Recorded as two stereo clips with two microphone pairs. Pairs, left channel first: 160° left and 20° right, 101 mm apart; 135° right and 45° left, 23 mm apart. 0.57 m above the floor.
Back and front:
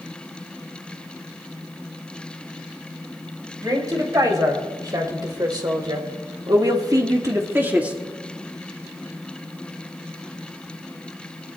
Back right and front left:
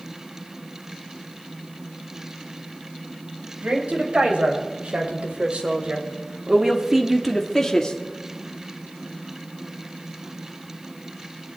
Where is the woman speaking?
30° left, 4 m; by 8.0 s 90° right, 1.4 m.